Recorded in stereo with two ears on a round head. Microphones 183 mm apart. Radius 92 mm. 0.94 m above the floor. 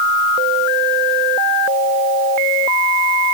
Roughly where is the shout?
No shout in this recording.